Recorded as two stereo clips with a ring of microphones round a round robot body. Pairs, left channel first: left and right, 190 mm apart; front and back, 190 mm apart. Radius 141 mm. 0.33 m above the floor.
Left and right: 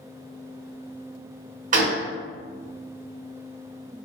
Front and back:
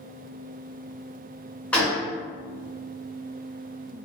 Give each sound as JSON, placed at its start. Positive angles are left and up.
{"t": 1.7, "sound": "a gunshot", "azimuth_deg": -80, "distance_m": 0.7}